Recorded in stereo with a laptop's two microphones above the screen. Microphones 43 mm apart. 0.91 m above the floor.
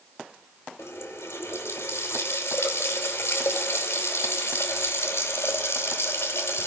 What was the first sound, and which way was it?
A running tap, 85° left.